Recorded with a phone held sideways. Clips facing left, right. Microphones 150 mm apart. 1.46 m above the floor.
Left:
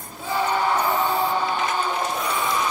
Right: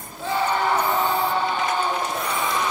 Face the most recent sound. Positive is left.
turn(degrees=15)  # may be behind; listen again after turning